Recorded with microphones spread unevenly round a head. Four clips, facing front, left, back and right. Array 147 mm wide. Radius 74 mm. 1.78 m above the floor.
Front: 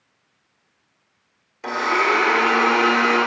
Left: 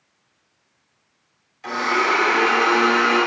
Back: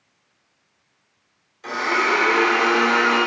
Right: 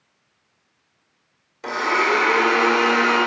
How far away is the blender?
About 1.4 m.